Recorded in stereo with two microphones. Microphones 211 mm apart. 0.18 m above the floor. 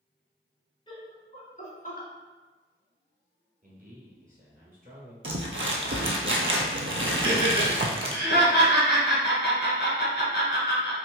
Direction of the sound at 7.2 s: 55° left (ahead or behind).